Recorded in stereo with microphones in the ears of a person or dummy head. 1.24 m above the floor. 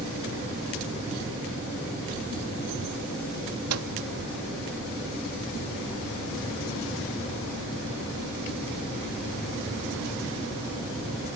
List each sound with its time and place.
3.7 s a microwave: 85° right